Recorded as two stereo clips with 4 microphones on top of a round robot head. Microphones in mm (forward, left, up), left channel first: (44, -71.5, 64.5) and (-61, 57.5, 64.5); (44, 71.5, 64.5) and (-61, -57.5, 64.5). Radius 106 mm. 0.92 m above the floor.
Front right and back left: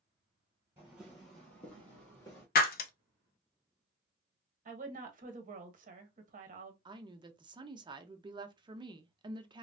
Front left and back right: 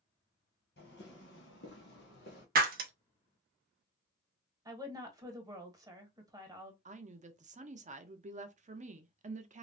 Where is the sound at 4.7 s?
165° left, 1.0 m.